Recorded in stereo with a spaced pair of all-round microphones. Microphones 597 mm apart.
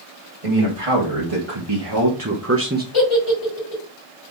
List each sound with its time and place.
0.4 s a man speaking: 60° right (ahead or behind), 2 m; by 2.8 s 15° right (ahead or behind), 1.1 m
2.9 s a giggle: 55° left (ahead or behind), 2.5 m